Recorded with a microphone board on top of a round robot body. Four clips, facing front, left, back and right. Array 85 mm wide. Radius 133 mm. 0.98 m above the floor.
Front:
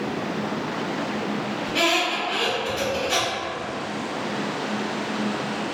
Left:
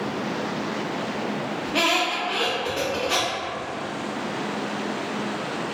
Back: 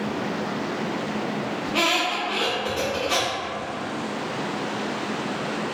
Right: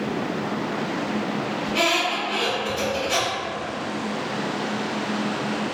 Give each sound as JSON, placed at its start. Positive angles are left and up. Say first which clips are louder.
{"t": 1.6, "sound": "a squeak", "louder": "even, front 1 dB", "azimuth_deg": 125, "distance_m": 0.6}